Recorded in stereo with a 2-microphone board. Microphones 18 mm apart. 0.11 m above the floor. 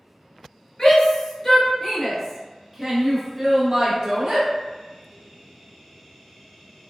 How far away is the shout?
About 1.4 m.